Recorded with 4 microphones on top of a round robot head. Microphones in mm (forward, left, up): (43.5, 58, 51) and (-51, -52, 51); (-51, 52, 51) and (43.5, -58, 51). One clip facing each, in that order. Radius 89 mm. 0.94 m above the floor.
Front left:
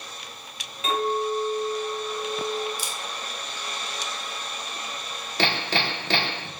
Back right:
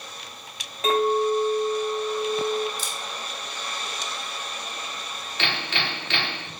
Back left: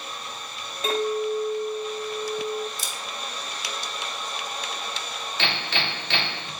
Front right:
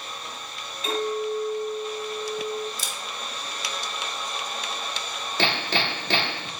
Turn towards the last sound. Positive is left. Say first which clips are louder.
# front left 4 dB, front right 4 dB
turn(degrees=0)